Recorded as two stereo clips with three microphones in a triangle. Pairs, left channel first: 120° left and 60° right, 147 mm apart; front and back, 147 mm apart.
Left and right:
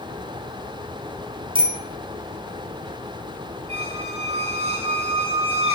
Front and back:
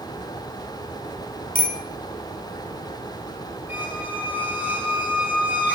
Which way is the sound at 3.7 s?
100° right.